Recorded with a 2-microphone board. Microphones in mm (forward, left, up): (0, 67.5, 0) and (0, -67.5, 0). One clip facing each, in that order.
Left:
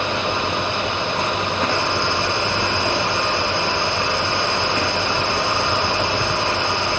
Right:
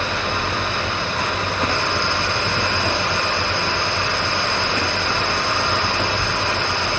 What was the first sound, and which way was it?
Only background noise.